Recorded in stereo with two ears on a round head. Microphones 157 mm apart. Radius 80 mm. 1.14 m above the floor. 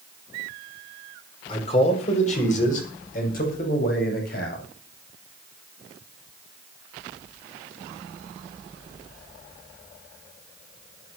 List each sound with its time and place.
1.5 s a man speaking: 30° left (ahead or behind), 5 m; by 4.6 s 55° left (ahead or behind), 9 m